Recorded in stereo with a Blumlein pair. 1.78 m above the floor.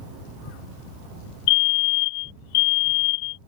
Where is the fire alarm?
45° left.